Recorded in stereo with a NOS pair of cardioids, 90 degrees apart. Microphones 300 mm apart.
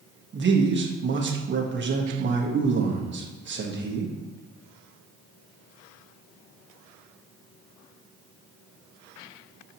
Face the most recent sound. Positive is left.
turn(degrees=-40)